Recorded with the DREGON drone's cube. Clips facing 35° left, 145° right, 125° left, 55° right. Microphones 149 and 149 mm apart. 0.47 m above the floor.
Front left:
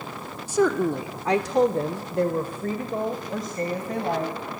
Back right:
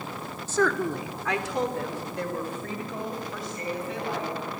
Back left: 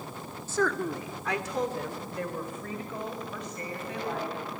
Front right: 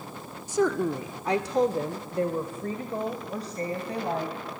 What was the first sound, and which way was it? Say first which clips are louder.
A woman speaking: front left 4 dB, front right 4 dB; 20° right.